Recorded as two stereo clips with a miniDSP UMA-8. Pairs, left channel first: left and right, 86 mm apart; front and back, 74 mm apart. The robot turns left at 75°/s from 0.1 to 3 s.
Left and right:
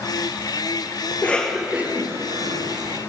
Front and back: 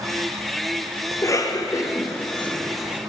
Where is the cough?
35° left, 0.6 m; by 3.0 s 105° right, 0.6 m.